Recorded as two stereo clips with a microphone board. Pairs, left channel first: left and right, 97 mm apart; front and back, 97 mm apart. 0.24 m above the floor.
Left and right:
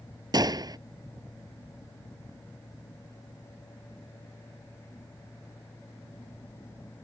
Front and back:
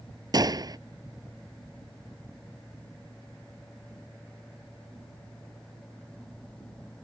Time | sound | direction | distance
0.3 | a gunshot | 135° right | ?